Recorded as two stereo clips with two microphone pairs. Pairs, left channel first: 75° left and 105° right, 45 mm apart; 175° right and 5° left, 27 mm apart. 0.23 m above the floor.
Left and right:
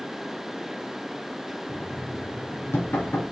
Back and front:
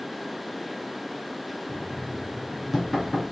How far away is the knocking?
About 2.5 m.